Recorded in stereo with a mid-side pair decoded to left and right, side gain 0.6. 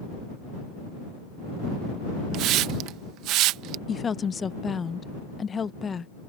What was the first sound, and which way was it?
A hiss, 65° right.